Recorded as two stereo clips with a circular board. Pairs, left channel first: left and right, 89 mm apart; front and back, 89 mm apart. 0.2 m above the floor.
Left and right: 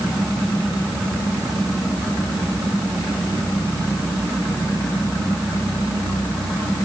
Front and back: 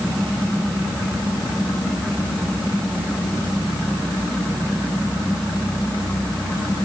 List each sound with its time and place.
Only background noise.